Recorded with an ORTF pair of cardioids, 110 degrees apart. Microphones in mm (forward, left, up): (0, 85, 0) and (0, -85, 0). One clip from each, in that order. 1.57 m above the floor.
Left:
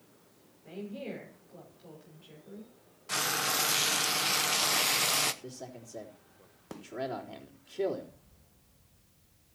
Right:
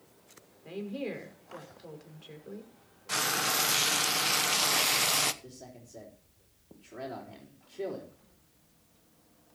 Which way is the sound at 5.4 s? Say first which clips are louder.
Left 4 dB; 30° left.